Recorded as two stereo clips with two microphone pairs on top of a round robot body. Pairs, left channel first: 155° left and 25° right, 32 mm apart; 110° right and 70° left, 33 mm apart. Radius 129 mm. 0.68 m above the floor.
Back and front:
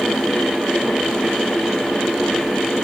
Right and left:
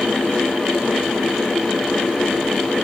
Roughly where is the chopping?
No chopping in this recording.